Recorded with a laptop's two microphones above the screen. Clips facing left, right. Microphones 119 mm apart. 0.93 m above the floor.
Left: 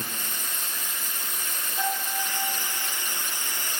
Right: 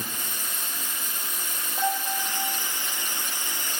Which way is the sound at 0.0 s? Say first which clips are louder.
Even; 15° right (ahead or behind).